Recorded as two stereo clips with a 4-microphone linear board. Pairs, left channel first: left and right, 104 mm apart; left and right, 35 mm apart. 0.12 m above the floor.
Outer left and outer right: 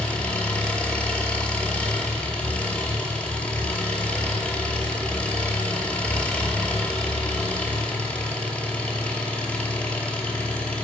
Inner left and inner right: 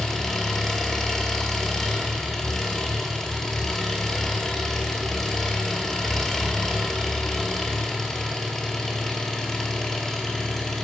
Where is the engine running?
10° left (ahead or behind), 0.7 m.